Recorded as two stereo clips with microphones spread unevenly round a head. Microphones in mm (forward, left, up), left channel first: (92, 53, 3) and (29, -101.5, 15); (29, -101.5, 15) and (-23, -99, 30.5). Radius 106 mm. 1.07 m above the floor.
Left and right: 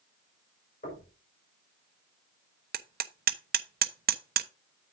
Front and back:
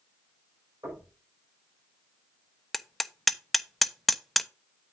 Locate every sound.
0.8 s knocking: 125° left, 5.5 m
2.7 s hammering: 85° right, 0.7 m